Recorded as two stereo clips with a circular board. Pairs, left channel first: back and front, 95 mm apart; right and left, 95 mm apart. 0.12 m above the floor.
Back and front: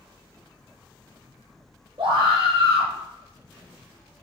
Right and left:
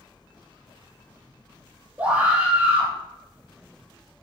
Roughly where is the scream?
Ahead.